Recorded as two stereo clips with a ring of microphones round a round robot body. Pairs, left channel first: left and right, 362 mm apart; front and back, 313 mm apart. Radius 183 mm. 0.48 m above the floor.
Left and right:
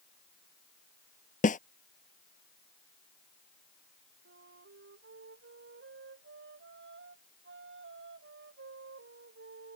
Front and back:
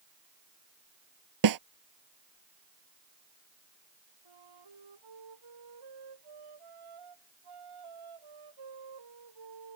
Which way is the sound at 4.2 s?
150° right.